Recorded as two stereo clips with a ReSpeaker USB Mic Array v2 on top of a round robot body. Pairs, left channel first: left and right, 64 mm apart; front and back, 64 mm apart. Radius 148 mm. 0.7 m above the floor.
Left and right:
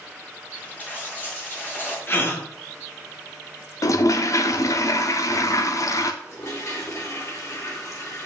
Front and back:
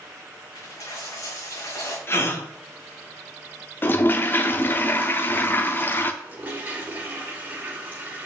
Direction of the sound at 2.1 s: 45° left.